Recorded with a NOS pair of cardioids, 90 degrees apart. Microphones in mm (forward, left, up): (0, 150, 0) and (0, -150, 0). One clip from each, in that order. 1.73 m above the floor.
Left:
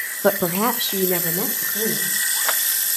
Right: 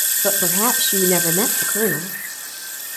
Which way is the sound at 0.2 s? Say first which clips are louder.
Left 2 dB; 25° left.